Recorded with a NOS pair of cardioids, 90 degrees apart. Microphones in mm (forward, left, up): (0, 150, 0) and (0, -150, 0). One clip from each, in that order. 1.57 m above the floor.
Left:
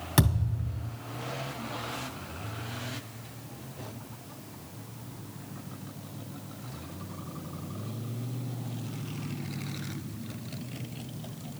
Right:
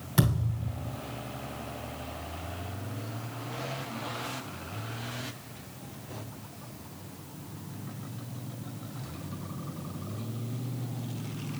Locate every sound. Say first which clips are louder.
0.2 s a thud: left 1 dB; 45° left, 2.5 m